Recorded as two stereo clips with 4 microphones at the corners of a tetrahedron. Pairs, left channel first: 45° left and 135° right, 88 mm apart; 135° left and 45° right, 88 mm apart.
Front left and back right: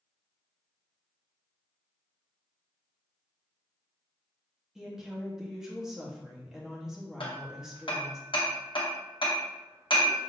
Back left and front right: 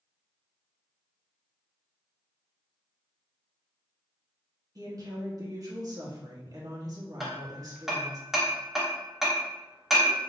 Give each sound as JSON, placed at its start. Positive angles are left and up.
{"t": 4.8, "sound": "a woman speaking", "azimuth_deg": -50, "distance_m": 1.2}
{"t": 7.2, "sound": "hammering", "azimuth_deg": 45, "distance_m": 1.0}